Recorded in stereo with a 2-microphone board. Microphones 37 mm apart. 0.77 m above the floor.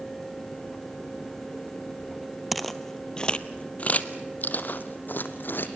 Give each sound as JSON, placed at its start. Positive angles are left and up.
{"t": 2.5, "sound": "footsteps", "side_deg": 0, "distance_m": 0.9}